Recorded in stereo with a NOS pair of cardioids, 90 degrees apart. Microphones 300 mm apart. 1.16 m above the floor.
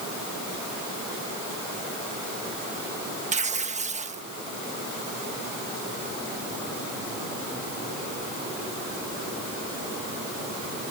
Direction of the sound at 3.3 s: 20° right.